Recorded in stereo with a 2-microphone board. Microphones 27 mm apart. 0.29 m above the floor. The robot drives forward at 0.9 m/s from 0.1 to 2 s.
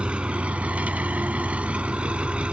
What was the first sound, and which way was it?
An engine running, 45° right (ahead or behind).